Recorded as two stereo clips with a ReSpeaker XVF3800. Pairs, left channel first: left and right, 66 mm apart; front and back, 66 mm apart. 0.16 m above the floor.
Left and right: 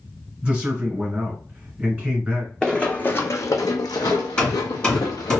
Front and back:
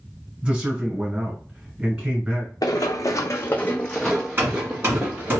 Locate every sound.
0.4 s a man speaking: 135° right, 1.6 m
2.6 s running footsteps: 10° left, 0.7 m; by 5.4 s 115° left, 1.2 m
4.4 s hammering: 155° left, 1.6 m